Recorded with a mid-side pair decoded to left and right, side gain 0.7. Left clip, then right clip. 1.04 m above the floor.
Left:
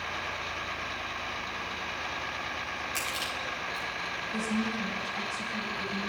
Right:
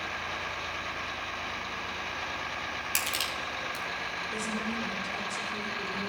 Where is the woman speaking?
50° right, 4.5 m.